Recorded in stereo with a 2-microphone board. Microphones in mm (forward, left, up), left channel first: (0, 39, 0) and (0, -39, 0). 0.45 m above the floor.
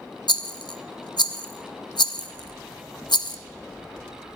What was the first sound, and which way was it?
A rattle, 70° left (ahead or behind).